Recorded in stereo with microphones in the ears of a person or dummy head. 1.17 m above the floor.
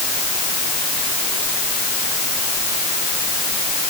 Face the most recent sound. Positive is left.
No sound to turn to.